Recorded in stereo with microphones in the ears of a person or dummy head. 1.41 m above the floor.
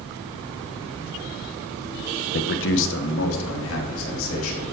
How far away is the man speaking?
About 0.5 m.